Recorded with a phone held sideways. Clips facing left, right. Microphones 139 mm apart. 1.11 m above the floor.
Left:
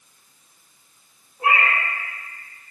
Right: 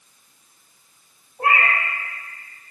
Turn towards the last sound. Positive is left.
turn(degrees=-60)  # may be behind; listen again after turning